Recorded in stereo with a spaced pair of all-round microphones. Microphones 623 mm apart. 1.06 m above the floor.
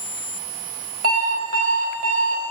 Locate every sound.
1.0 s an alarm clock: 80° right, 4.5 m